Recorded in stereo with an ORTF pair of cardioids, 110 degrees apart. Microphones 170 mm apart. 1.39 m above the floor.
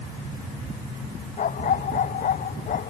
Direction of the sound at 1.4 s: 50° left.